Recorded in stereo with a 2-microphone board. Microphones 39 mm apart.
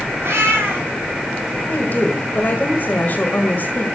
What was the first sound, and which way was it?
A cat meowing, 70° right (ahead or behind).